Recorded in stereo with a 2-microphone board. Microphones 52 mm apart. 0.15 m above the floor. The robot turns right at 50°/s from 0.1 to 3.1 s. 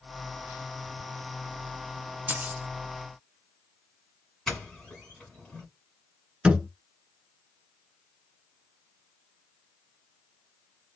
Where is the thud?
20° right (ahead or behind), 0.7 m.